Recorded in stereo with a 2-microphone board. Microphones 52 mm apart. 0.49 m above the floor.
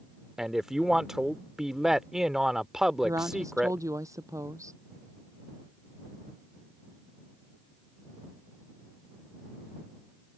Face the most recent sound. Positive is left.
turn(degrees=-85)